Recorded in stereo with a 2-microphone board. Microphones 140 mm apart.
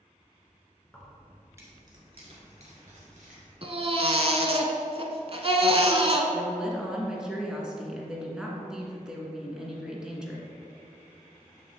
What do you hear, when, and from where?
0.8 s keys jangling: 10° left (ahead or behind), 1.6 m; by 3.5 s 70° right (ahead or behind), 2.5 m
3.6 s a baby crying: 45° right (ahead or behind), 0.7 m
6.3 s a woman speaking: 5° right (ahead or behind), 1.4 m